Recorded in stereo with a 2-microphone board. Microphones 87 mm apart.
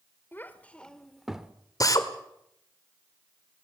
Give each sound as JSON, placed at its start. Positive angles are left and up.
{"t": 0.3, "sound": "a child speaking", "side_deg": 25, "distance_m": 1.7}
{"t": 1.8, "sound": "a drill", "side_deg": 45, "distance_m": 1.7}